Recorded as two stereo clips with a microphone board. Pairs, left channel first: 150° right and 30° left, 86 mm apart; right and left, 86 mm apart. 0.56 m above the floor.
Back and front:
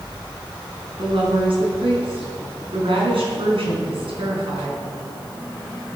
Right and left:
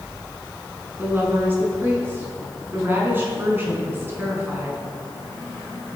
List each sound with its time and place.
1.0 s a woman speaking: 25° left, 5.5 m